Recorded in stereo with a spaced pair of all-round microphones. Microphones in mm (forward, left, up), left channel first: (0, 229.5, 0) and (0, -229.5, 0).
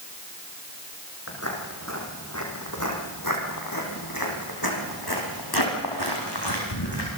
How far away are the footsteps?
About 3.5 m.